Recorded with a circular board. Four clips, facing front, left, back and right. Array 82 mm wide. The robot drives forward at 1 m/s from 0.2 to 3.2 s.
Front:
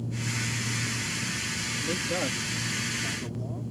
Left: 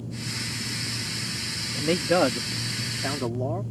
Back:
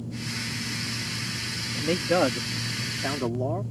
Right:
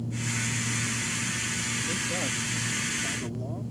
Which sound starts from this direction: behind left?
A man speaking, at 1.7 s.